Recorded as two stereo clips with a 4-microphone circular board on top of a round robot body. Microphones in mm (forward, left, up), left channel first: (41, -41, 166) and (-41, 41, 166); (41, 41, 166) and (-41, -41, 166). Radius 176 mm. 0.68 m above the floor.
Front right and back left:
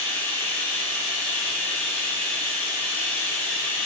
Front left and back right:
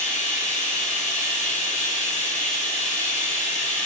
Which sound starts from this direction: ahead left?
Running water, at 0.0 s.